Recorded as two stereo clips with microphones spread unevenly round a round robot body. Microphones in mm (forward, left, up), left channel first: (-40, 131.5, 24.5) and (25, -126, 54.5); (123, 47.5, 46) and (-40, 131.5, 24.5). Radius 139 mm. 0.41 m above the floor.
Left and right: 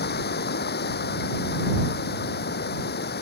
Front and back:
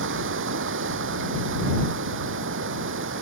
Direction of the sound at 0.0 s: 160° left.